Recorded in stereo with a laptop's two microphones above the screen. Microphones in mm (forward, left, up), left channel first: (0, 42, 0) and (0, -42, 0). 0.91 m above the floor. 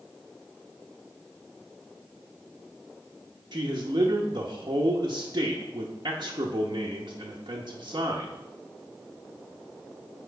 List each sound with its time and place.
3.5 s a man speaking: 55° right (ahead or behind), 0.8 m